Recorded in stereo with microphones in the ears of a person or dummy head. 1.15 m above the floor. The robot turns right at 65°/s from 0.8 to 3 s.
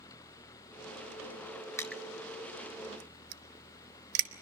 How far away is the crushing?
About 1.1 m.